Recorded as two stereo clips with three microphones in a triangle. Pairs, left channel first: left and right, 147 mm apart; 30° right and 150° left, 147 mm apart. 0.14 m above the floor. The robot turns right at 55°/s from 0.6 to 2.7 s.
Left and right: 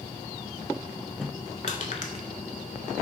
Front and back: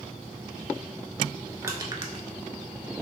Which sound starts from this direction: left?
Crushing, at 1.6 s.